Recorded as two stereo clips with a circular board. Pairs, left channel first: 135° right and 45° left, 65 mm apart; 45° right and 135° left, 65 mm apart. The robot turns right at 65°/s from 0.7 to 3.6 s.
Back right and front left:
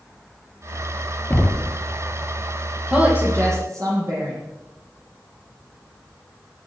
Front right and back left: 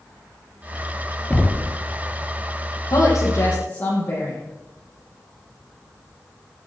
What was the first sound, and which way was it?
Knocking, 100° right.